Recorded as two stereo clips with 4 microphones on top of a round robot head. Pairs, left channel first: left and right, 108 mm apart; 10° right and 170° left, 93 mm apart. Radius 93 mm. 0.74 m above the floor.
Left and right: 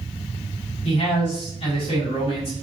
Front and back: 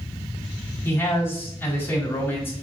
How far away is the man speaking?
About 5 m.